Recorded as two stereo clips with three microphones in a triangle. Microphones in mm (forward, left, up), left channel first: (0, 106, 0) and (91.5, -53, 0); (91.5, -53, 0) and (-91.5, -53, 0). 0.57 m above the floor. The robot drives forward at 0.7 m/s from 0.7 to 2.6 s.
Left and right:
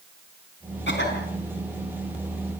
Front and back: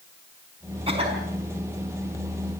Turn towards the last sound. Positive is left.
turn(degrees=130)